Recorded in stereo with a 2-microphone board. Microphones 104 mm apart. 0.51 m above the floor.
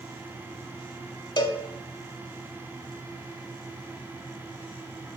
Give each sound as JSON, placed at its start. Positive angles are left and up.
{"t": 1.4, "sound": "a cowbell", "side_deg": 40, "distance_m": 0.8}